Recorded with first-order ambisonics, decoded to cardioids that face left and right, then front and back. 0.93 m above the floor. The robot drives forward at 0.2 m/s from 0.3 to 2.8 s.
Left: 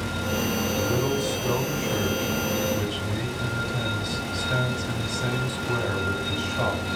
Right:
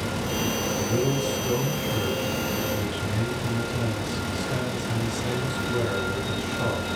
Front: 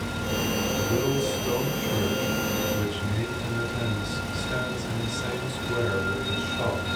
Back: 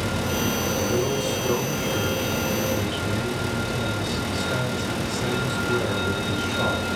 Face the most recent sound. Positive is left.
turn(degrees=115)